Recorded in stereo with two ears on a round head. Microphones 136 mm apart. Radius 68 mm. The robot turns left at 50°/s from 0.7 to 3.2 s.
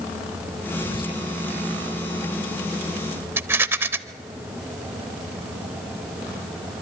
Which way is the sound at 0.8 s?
25° left (ahead or behind).